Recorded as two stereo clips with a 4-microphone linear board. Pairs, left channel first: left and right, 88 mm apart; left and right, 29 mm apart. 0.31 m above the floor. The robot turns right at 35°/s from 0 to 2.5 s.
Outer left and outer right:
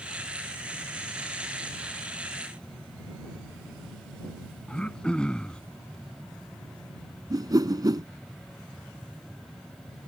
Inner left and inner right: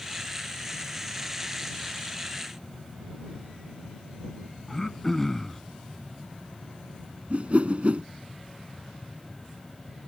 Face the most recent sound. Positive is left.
turn(degrees=-50)  # may be behind; listen again after turning